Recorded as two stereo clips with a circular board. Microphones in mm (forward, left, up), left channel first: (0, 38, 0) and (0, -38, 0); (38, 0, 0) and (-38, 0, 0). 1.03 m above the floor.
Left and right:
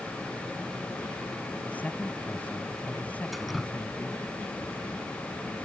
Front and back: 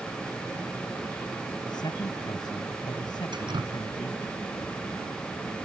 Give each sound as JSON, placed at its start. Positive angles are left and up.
{"t": 1.6, "sound": "a man speaking", "azimuth_deg": 20}
{"t": 3.3, "sound": "dripping", "azimuth_deg": 180}